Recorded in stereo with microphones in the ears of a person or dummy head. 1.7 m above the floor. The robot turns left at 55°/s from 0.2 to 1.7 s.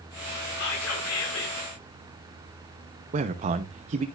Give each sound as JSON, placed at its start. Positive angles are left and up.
{"t": 0.6, "sound": "whispering", "azimuth_deg": 120, "distance_m": 6.5}
{"t": 3.1, "sound": "a man speaking", "side_deg": -45, "distance_m": 1.0}